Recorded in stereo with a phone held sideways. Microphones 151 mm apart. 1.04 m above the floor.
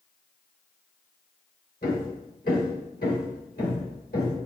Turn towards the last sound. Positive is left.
turn(degrees=80)